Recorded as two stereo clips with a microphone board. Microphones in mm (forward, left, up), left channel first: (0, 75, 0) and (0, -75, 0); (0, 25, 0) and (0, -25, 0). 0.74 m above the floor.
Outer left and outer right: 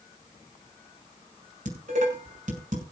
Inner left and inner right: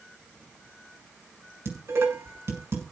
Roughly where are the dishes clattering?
Right.